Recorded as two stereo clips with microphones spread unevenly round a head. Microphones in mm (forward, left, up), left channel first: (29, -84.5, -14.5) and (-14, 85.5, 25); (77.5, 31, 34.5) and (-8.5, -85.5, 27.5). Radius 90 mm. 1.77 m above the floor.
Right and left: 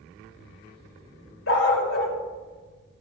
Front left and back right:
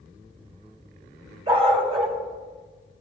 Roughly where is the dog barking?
Right.